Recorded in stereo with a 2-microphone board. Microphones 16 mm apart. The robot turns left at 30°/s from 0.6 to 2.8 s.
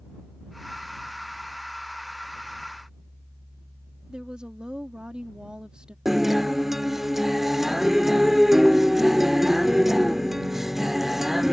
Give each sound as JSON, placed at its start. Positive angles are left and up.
{"t": 4.1, "sound": "a woman speaking", "side_deg": -65}
{"t": 6.0, "sound": "a guitar", "side_deg": -20}